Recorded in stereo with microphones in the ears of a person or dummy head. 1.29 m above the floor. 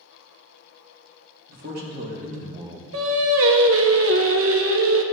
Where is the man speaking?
60° right (ahead or behind), 3 m; by 2.8 s 25° right (ahead or behind), 1.2 m.